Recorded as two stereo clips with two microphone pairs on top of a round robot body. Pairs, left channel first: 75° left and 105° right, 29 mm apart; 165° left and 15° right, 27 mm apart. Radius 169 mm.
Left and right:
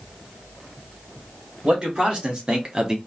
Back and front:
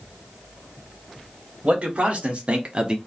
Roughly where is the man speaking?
Ahead right.